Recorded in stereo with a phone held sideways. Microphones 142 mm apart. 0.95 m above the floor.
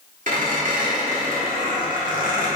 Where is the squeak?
70° right (ahead or behind), 1.8 m.